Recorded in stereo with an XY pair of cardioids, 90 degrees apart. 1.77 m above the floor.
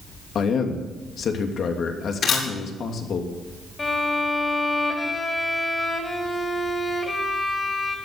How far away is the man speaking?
About 2.5 m.